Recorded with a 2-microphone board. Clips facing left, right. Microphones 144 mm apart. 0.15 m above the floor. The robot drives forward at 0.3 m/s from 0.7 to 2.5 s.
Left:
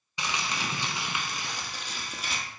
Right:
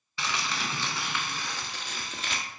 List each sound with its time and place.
0.2 s crumpling: 15° left (ahead or behind), 0.7 m; by 2.4 s 10° left (ahead or behind), 1.1 m